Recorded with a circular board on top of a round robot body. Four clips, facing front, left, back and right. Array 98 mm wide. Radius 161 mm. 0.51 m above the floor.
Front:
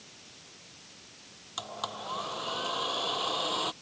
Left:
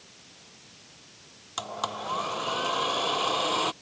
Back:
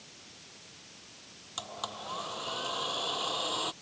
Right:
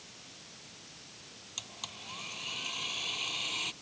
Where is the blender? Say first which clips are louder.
Left 18 dB, front 2 dB; 85° left.